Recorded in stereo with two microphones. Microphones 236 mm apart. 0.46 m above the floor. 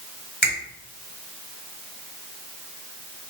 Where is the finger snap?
45° left (ahead or behind), 1.5 m.